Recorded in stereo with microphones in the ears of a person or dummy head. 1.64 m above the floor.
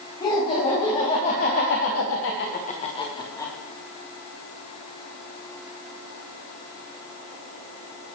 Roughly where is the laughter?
Left.